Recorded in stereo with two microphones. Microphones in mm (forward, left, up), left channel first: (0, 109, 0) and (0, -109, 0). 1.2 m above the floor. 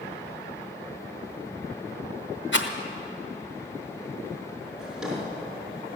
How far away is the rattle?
About 1.1 m.